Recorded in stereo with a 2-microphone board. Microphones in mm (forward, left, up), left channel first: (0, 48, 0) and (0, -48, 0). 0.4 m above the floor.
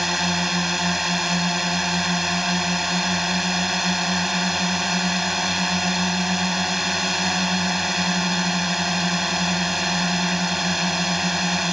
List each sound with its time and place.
0.0 s a drone: 5° right (ahead or behind)